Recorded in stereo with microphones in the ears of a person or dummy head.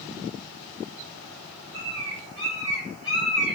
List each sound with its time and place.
1.7 s a bird: 30° left (ahead or behind), 1.2 m